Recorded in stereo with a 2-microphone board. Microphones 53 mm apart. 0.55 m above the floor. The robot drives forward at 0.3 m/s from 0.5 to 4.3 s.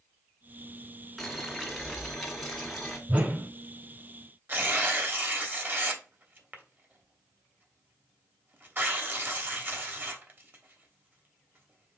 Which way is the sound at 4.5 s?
40° right (ahead or behind).